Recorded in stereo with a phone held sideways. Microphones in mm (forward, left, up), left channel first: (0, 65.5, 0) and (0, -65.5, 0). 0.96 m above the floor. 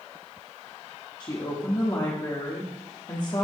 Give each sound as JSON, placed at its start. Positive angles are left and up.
{"t": 1.2, "sound": "a woman speaking", "side_deg": 35, "distance_m": 1.5}